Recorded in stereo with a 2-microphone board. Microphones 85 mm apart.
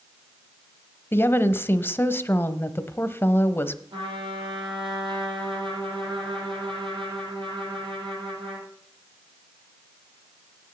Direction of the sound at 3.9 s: 75° right (ahead or behind).